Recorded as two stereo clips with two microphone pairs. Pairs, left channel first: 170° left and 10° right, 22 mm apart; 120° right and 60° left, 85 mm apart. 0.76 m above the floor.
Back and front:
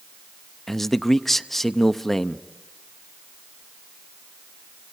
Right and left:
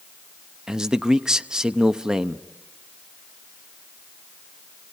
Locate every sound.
0.7 s a man speaking: 140° left, 0.7 m